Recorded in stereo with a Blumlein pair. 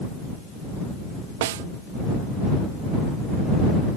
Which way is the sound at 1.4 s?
55° right.